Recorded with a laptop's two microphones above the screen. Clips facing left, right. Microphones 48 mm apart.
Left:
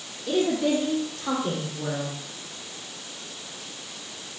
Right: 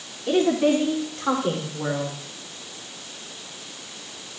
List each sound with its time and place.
0.3 s a woman speaking: 50° right (ahead or behind), 2.5 m; by 2.2 s 55° right (ahead or behind), 3.5 m